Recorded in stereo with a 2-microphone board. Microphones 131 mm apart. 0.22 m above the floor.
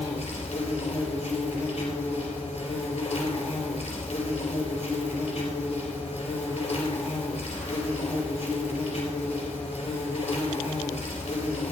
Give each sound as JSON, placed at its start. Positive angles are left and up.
{"t": 0.0, "sound": "an insect", "side_deg": 60, "distance_m": 3.0}